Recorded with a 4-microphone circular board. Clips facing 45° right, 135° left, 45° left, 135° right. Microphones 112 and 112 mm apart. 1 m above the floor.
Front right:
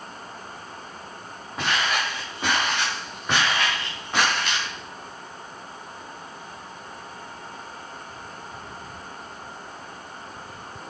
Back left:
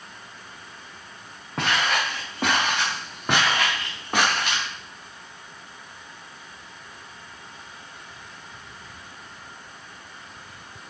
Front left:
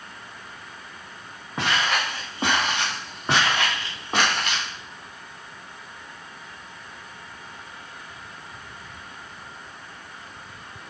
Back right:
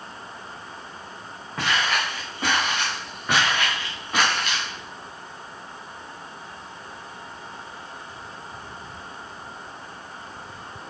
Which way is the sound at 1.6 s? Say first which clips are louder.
Back left 1 dB, even; 115° left.